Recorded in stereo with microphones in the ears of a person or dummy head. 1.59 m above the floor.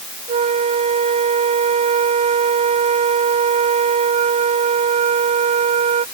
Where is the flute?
35° right (ahead or behind).